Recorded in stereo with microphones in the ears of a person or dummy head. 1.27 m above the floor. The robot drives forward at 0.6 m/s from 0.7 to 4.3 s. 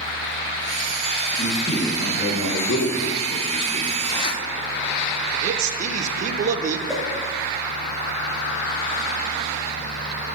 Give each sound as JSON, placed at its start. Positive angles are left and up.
{"t": 1.4, "sound": "a man speaking", "side_deg": 35, "distance_m": 1.2}
{"t": 4.0, "sound": "a zipper", "side_deg": 20, "distance_m": 0.7}
{"t": 5.4, "sound": "a man speaking", "side_deg": -40, "distance_m": 0.6}
{"t": 6.9, "sound": "a whoosh", "side_deg": 0, "distance_m": 0.9}